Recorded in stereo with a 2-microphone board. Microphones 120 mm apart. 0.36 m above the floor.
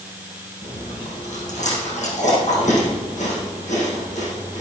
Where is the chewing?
70° left (ahead or behind), 5.5 m.